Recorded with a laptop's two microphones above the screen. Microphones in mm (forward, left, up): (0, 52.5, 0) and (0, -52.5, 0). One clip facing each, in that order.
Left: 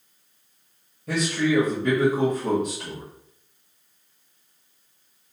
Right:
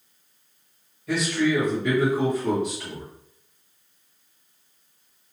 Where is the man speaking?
45° left (ahead or behind), 1.2 m.